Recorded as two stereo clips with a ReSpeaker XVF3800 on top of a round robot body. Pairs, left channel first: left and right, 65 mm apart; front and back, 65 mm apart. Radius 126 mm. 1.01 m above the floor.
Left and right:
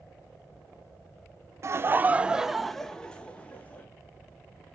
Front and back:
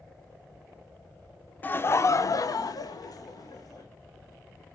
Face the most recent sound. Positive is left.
turn(degrees=25)